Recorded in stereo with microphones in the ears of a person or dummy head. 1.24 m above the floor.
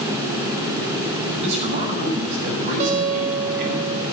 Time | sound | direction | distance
1.4 | a man speaking | 40° right (ahead or behind) | 7 m
2.8 | a guitar | 40° right (ahead or behind) | 2.5 m